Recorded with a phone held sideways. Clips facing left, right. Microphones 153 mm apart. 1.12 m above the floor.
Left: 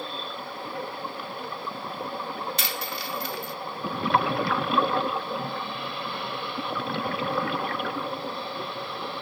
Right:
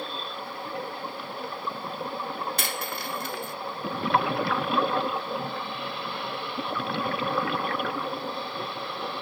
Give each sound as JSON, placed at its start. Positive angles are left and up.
{"t": 2.6, "sound": "a dropped coin", "side_deg": -50}